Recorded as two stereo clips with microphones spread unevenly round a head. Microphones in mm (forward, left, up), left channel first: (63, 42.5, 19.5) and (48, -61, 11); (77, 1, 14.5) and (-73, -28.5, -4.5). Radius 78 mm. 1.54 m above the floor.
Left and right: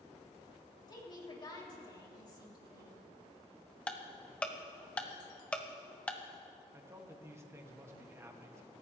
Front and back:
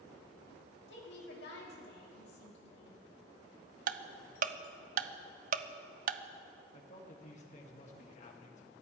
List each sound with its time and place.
0.9 s a woman speaking: 35° left, 3 m
3.9 s ticking: 165° left, 0.6 m
6.7 s a man speaking: 30° right, 2 m